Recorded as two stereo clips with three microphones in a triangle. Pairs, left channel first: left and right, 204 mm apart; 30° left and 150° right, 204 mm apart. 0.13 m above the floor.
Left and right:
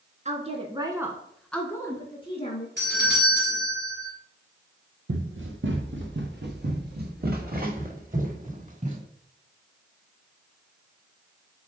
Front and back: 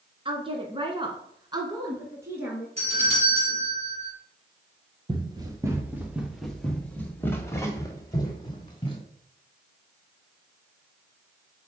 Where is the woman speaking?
105° right, 1.4 m; by 2.7 s 135° left, 1.6 m.